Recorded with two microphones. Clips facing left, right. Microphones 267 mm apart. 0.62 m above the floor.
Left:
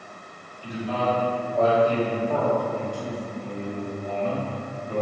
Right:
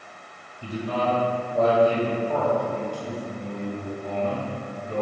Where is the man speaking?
50° right (ahead or behind), 1.5 m; by 5.0 s 45° left (ahead or behind), 3 m.